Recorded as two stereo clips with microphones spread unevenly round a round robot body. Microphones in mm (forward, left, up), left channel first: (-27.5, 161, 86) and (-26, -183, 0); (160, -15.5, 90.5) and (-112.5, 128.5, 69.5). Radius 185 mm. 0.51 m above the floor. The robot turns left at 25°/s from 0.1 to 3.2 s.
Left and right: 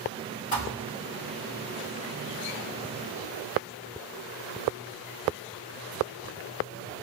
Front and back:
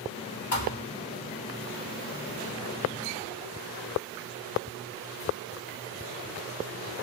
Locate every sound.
0.5 s a thud: 25° left, 1.8 m; by 0.8 s 20° left, 1.8 m